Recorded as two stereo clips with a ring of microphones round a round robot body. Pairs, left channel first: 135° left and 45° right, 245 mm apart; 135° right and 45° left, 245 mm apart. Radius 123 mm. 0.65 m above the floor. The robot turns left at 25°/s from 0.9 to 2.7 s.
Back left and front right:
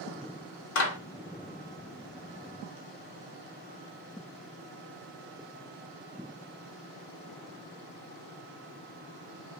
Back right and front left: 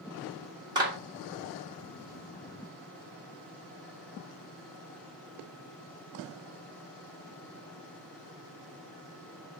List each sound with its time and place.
0.8 s a clap: 115° left, 1.5 m